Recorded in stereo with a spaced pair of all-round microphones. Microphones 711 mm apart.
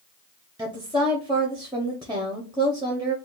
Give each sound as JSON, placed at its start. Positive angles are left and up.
{"t": 0.6, "sound": "a woman speaking", "side_deg": -5, "distance_m": 0.7}